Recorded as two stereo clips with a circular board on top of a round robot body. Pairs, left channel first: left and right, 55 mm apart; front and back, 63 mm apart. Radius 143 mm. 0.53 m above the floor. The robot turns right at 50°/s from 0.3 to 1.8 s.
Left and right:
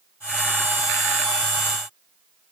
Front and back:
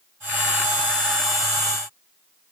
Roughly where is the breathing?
No breathing in this recording.